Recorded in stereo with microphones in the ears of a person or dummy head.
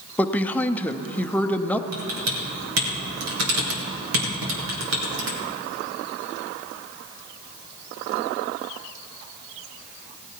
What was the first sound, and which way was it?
A woman speaking, 5° left (ahead or behind).